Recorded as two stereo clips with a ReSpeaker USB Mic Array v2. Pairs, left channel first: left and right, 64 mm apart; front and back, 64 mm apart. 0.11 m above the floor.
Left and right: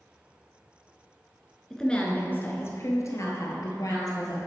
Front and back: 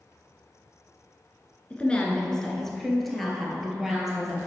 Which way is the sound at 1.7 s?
20° left.